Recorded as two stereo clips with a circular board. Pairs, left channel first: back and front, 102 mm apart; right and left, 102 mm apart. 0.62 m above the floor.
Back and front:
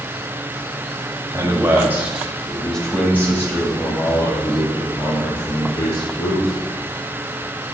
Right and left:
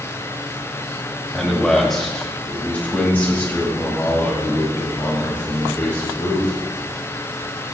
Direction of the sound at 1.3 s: Straight ahead.